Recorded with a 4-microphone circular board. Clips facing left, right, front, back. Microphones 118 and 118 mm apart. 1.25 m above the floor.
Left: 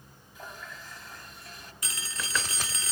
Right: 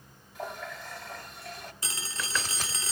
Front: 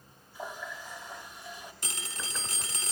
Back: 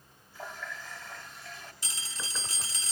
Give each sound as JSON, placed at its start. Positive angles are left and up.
{"t": 0.3, "sound": "a running tap", "azimuth_deg": -70, "distance_m": 2.0}
{"t": 1.8, "sound": "a phone ringing", "azimuth_deg": -30, "distance_m": 1.7}